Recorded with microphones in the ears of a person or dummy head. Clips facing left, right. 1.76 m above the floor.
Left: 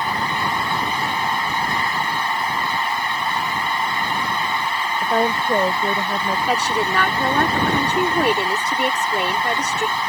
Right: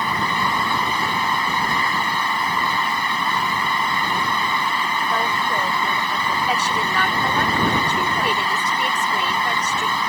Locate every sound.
0.0 s a fan: 85° right
5.0 s a woman speaking: 35° left (ahead or behind)
6.5 s a woman speaking: 45° left (ahead or behind)